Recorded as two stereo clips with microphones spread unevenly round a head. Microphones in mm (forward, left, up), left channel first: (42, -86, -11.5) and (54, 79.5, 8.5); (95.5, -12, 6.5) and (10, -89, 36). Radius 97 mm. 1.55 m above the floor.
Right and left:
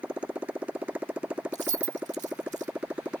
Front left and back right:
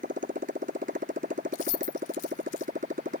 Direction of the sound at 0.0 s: 170° left.